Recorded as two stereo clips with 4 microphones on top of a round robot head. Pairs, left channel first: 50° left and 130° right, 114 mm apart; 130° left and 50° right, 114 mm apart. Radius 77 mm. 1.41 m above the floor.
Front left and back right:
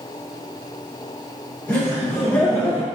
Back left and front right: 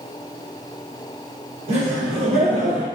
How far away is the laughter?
About 1.2 m.